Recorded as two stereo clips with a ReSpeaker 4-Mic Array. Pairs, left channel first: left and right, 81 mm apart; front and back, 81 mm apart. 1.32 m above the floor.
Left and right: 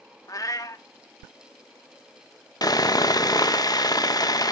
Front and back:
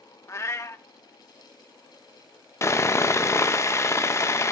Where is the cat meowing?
50° left, 1.4 m.